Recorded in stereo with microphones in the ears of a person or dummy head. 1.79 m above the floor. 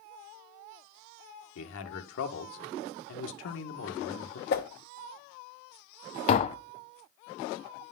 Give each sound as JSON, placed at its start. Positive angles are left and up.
{"t": 1.6, "sound": "a man speaking", "side_deg": 75, "distance_m": 1.9}
{"t": 4.5, "sound": "a whoosh", "side_deg": 50, "distance_m": 1.1}
{"t": 6.3, "sound": "tapping", "side_deg": 40, "distance_m": 0.6}